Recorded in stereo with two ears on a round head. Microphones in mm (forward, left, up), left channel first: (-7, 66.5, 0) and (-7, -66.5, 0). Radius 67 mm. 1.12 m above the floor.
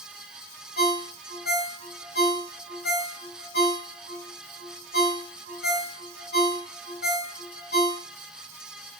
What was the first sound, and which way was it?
A ringtone, 75° left (ahead or behind).